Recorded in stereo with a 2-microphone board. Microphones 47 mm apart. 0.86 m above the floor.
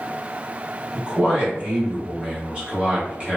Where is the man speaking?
25° right (ahead or behind), 1.1 m.